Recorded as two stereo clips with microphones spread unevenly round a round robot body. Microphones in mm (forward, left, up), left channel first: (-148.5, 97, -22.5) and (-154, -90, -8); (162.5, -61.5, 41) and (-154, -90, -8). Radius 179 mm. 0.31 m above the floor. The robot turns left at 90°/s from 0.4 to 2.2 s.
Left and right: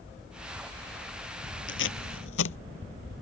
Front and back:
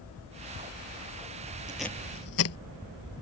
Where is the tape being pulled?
105° left; by 2.6 s 60° left.